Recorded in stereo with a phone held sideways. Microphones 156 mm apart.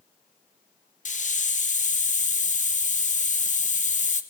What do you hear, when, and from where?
1.1 s a hiss: 55° left (ahead or behind), 0.5 m